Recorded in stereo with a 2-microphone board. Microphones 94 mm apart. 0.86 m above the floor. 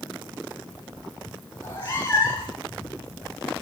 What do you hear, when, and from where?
1.6 s a cat meowing: 30° left (ahead or behind), 4 m; by 2.6 s 25° left (ahead or behind), 4.5 m